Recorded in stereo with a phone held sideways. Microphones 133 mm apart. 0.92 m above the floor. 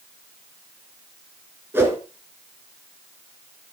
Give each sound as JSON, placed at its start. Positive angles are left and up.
{"t": 1.7, "sound": "a whoosh", "side_deg": -15, "distance_m": 2.5}